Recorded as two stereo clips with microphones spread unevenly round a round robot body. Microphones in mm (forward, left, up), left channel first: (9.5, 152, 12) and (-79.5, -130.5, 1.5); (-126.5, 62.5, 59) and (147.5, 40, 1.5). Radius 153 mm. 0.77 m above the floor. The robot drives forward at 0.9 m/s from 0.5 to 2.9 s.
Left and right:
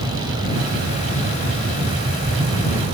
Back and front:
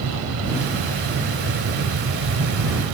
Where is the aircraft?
30° right; by 2.9 s 35° right.